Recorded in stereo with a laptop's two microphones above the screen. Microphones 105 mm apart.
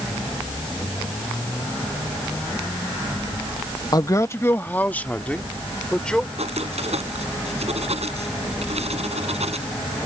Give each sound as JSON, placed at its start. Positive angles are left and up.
{"t": 3.9, "sound": "a man speaking", "side_deg": 40}
{"t": 6.4, "sound": "writing", "side_deg": -85}